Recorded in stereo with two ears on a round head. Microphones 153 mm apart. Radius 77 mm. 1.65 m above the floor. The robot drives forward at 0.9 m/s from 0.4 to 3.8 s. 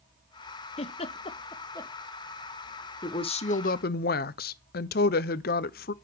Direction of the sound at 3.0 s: 25° left (ahead or behind).